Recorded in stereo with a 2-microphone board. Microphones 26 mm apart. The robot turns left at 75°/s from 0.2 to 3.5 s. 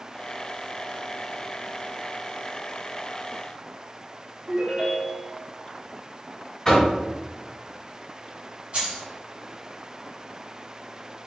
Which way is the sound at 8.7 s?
60° right (ahead or behind).